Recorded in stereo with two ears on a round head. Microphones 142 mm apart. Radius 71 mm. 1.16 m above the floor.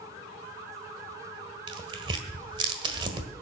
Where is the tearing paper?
30° right (ahead or behind), 1.5 m.